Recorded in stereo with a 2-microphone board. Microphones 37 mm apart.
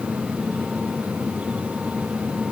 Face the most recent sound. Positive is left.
No sound to turn to.